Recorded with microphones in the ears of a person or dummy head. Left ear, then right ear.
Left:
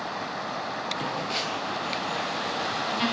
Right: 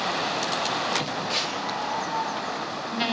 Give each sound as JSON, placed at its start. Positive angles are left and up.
{"t": 1.0, "sound": "a phone buzzing", "side_deg": -5, "distance_m": 1.1}